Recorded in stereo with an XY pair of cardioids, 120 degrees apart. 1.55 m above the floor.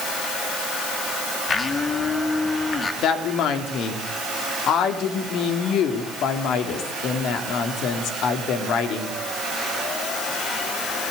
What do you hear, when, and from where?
1.5 s a blender: 30° left, 3 m
3.0 s a woman speaking: 65° left, 3.5 m